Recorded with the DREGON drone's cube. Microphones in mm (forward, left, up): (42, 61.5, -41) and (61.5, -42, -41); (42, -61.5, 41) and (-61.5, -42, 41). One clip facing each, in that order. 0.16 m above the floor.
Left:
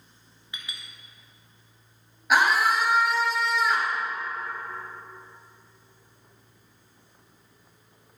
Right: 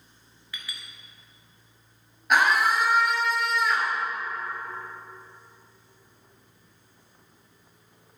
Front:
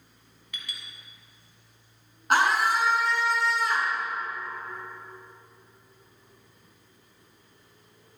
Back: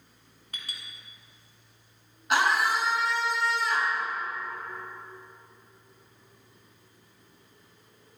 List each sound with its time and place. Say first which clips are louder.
0.5 s a clink: even, front 1 dB; 155° left, 1.1 m
2.3 s a scream: even, front 2 dB; 15° left, 1.9 m